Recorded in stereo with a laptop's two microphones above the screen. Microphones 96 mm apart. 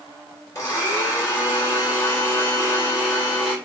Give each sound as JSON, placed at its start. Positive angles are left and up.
{"t": 0.6, "sound": "a blender", "side_deg": 35, "distance_m": 3.0}